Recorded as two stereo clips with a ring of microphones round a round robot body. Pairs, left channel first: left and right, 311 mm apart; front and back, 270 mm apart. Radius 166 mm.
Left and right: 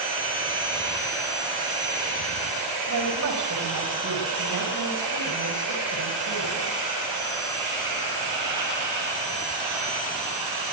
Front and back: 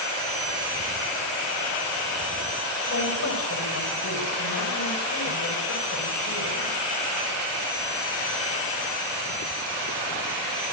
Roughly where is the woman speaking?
Ahead right.